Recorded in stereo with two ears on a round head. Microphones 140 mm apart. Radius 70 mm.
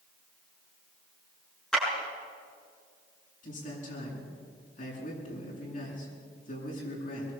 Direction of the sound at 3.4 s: 55° left (ahead or behind).